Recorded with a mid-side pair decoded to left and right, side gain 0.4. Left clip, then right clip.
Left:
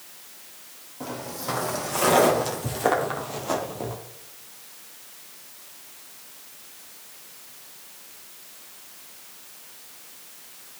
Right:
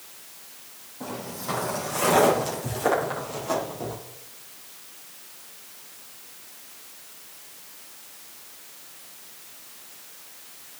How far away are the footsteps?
About 3 m.